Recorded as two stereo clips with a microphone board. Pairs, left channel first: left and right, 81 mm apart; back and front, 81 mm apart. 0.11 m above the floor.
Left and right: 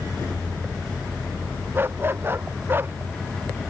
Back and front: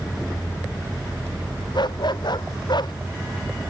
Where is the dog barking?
155° right.